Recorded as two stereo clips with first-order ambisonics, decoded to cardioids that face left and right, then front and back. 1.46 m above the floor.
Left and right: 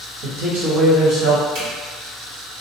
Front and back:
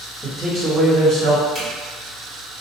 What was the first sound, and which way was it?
A man speaking, 80° right.